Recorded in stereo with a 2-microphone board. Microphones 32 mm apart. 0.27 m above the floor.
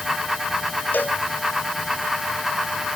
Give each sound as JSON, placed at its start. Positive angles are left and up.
{"t": 0.9, "sound": "a cowbell", "side_deg": 75}